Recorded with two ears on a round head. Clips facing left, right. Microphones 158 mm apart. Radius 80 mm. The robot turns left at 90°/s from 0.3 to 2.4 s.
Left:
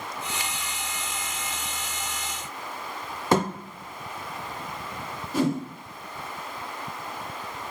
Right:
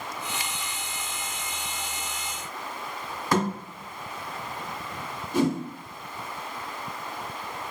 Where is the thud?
20° left (ahead or behind), 0.7 m.